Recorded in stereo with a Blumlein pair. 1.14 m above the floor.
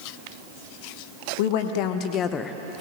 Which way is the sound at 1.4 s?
50° left.